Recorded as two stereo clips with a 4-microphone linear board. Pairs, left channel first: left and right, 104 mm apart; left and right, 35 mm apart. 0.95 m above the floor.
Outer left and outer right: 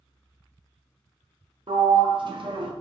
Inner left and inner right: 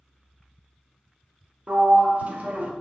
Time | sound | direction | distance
1.7 | a sliding door | 50° right (ahead or behind) | 0.7 m